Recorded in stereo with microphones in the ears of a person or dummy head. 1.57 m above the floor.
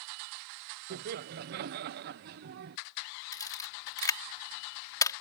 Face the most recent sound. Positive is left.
turn(degrees=20)  # may be behind; listen again after turning